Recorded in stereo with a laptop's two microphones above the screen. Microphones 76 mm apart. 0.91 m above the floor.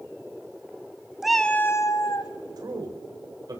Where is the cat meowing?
5° right (ahead or behind), 0.9 m; by 2.3 s 60° left (ahead or behind), 1.4 m.